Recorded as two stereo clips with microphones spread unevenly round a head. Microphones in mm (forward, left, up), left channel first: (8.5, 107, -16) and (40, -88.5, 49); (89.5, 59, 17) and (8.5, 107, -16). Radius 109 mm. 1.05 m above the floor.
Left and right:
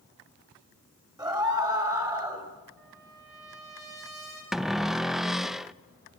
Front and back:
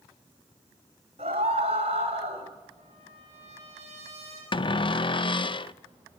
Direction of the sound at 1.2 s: 155° right.